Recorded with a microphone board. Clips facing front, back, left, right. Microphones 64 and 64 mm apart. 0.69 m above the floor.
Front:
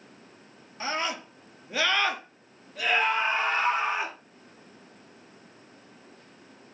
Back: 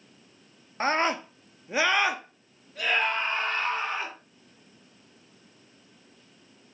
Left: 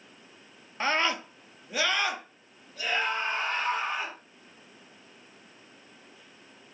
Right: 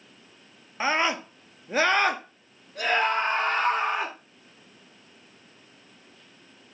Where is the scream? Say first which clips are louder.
Back 6 dB, right 2 dB; 165° right, 0.9 m; by 4.2 s 70° right, 1.7 m.